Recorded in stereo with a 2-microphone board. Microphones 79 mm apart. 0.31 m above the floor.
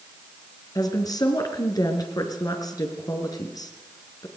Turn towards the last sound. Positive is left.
turn(degrees=50)  # may be behind; listen again after turning